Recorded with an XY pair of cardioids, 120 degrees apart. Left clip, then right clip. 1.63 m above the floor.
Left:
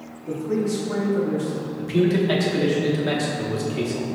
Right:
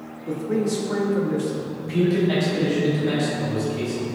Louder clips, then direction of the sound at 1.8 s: Left 1 dB; 35° left.